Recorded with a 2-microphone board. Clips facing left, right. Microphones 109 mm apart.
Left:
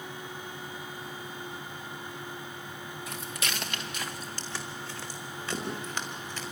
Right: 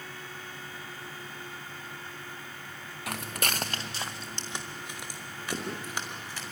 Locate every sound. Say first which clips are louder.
3.1 s footsteps: right 5 dB; 75° right (ahead or behind), 1.0 m; by 6.4 s 10° right (ahead or behind), 5.5 m